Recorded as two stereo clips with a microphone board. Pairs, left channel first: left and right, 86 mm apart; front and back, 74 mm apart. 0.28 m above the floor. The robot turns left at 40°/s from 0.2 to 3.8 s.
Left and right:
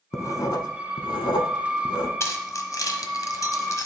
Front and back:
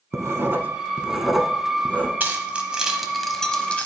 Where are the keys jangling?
125° left, 1.1 m; by 3.9 s 60° left, 1.1 m.